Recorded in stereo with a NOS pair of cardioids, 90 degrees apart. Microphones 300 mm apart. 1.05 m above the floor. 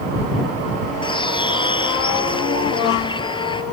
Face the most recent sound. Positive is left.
turn(degrees=15)